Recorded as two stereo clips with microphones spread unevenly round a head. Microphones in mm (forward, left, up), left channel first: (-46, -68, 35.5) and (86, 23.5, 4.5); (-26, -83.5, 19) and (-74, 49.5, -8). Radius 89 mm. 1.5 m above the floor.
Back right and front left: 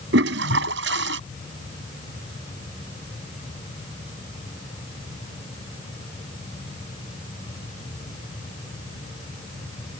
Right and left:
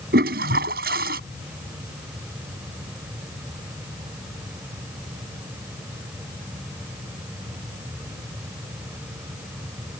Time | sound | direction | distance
0.1 | a toilet flushing | 65° left | ?